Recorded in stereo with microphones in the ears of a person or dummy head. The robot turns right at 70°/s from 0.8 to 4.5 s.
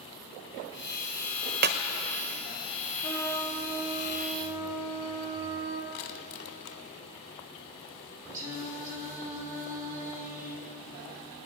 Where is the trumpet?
140° left, 2 m; by 5.8 s 115° right, 2 m.